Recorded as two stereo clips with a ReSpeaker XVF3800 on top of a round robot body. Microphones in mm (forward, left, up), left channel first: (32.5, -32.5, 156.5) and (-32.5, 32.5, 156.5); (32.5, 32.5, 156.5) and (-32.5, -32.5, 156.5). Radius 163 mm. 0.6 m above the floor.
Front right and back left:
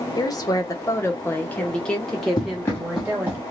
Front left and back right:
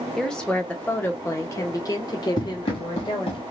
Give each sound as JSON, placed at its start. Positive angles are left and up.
{"t": 0.2, "sound": "a woman speaking", "azimuth_deg": -40, "distance_m": 1.4}
{"t": 2.4, "sound": "running footsteps", "azimuth_deg": 0, "distance_m": 0.8}